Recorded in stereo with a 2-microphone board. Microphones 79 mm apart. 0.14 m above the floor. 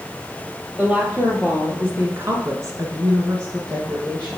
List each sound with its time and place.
0.8 s a woman speaking: 15° right (ahead or behind), 3 m; by 4.4 s 25° right (ahead or behind), 2.5 m